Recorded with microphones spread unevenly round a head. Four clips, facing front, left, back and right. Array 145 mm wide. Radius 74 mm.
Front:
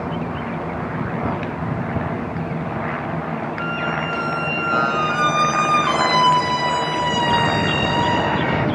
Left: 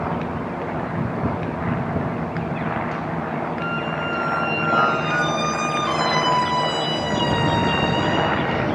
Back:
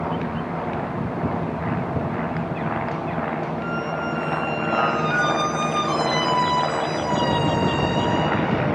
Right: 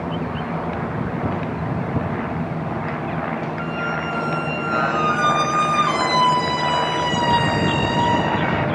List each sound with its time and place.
3.6 s a squeak: 25° right, 0.6 m